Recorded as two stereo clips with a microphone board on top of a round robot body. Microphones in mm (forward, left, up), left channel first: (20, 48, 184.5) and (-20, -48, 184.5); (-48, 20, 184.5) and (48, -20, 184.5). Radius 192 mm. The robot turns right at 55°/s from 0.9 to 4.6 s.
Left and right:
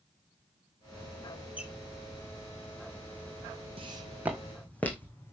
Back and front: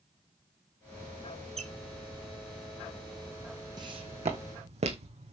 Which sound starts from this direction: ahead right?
A squeak, at 1.6 s.